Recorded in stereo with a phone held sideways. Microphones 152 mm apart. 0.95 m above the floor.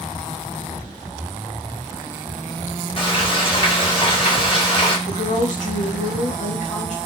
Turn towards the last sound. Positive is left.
turn(degrees=60)  # may be behind; listen again after turning